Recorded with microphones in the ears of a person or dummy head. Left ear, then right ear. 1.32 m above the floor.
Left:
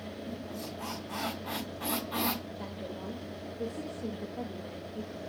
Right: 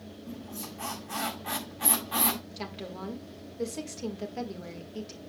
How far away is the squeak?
About 7 m.